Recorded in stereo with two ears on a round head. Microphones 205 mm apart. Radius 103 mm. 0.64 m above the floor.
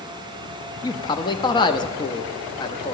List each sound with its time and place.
0.8 s a man speaking: 20° left (ahead or behind), 0.5 m